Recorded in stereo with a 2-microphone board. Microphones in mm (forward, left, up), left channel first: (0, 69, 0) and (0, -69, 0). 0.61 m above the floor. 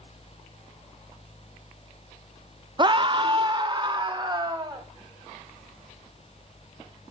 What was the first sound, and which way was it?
A scream, 30° right (ahead or behind).